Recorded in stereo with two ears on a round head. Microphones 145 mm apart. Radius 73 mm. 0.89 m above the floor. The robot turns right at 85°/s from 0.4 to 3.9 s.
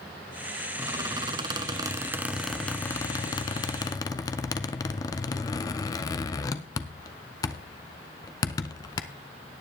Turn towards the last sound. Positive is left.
turn(degrees=25)  # may be behind; listen again after turning